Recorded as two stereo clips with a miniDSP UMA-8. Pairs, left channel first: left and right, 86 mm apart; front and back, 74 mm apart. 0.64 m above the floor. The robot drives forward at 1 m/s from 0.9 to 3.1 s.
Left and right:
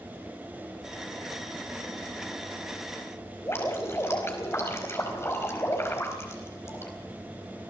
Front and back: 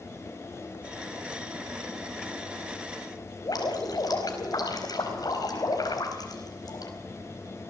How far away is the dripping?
About 4.5 m.